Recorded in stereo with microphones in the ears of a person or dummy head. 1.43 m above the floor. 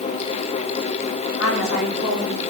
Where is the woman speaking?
85° left, 3 m; by 2.4 s 80° left, 3.5 m.